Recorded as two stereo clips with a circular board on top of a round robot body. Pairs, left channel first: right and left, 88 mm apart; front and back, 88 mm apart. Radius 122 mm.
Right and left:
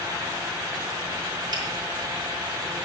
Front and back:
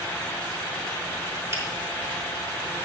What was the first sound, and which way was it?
A finger snap, 125° left.